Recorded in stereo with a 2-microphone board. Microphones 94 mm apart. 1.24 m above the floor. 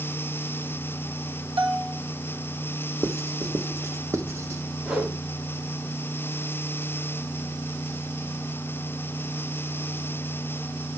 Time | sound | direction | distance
1.6 | a bell | 65° right (ahead or behind) | 1.5 m
3.0 | writing | 30° right (ahead or behind) | 1.0 m
4.8 | a whoosh | 15° right (ahead or behind) | 4 m